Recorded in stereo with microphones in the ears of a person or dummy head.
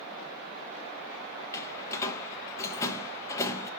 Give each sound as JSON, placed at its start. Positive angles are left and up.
{"t": 1.5, "sound": "a door slam", "side_deg": 15, "distance_m": 1.2}